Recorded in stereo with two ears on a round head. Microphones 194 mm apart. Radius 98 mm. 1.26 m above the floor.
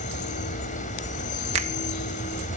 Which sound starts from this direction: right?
A finger snap, at 1.5 s.